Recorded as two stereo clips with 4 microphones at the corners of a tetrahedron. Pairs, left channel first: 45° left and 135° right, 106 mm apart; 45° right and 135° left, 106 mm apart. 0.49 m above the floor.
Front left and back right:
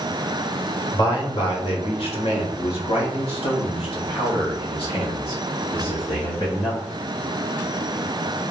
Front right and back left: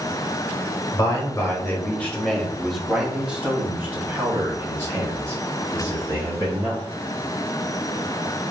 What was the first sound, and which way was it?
A man speaking, 5° left.